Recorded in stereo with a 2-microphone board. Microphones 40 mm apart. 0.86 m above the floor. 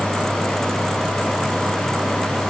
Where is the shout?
I don't hear a shout.